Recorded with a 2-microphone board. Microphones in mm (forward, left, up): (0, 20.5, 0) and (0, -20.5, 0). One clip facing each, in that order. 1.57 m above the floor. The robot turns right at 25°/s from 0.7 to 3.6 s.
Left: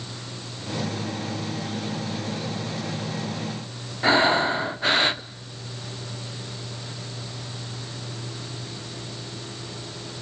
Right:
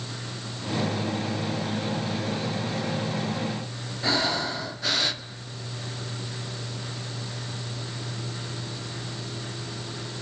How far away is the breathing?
About 0.7 m.